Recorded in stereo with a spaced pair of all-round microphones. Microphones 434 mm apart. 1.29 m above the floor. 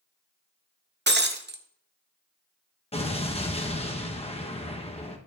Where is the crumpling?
No crumpling in this recording.